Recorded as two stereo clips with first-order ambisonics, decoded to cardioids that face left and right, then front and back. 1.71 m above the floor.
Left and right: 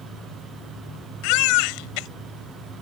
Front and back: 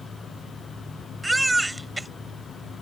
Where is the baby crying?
100° left.